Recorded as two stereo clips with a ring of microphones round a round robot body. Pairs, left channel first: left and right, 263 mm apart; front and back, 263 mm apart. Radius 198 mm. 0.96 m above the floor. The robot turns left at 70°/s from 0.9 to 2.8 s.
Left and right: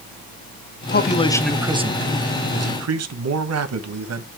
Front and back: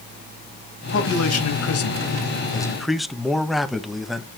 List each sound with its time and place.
0.9 s a man speaking: 40° left, 1.3 m; by 4.4 s 90° right, 1.3 m